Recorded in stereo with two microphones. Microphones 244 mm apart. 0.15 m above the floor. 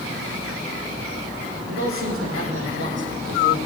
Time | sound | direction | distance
1.7 | a man speaking | 65° right (ahead or behind) | 6.5 m